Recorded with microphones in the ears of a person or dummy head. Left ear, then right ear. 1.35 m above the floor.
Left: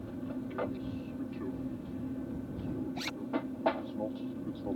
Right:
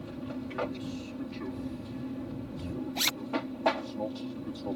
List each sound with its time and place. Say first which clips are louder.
0.0 s an aircraft: right 1 dB; 65° right (ahead or behind)
3.0 s a zipper: right 13 dB; 45° right (ahead or behind)